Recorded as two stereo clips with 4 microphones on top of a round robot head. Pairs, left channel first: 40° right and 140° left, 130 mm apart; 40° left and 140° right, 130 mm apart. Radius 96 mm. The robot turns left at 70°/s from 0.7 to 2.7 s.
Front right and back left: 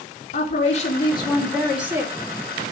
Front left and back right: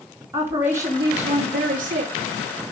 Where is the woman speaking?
65° right, 3.5 m; by 2.1 s 165° right, 3.5 m.